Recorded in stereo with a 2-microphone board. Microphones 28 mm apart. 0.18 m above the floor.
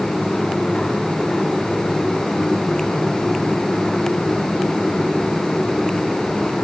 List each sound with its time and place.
Only background noise.